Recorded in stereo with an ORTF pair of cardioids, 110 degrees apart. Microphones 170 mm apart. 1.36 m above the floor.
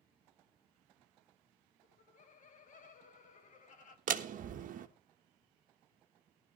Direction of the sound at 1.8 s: 50° left.